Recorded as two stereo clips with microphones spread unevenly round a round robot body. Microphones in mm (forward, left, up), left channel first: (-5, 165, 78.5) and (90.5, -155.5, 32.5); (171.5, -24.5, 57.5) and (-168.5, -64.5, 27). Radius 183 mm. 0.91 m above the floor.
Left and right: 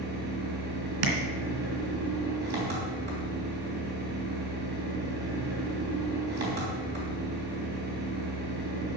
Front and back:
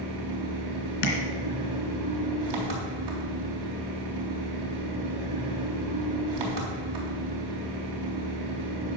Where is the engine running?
140° right, 3.5 m.